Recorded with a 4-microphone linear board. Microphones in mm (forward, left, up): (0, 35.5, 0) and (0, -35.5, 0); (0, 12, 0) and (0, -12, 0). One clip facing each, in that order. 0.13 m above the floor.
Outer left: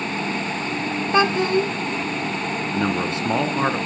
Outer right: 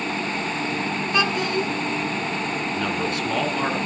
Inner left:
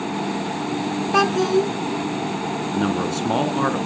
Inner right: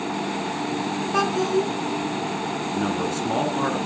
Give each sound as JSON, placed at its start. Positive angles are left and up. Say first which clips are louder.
{"t": 1.1, "sound": "a child speaking", "louder": "outer left 5 dB, inner left 4 dB", "side_deg": 30, "distance_m": 0.7}
{"t": 2.7, "sound": "a man speaking", "louder": "outer left 5 dB, inner left 3 dB", "side_deg": 25, "distance_m": 1.3}